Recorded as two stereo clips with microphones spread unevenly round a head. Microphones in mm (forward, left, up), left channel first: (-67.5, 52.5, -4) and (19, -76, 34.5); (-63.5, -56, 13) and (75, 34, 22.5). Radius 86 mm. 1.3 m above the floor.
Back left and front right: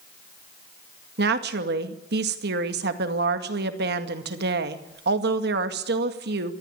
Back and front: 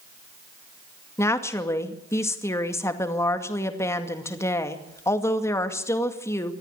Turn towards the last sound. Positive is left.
turn(degrees=-75)